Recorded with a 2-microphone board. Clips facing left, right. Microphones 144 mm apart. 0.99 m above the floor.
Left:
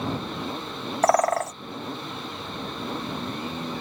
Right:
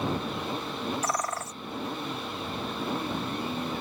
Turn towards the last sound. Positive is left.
turn(degrees=65)  # may be behind; listen again after turning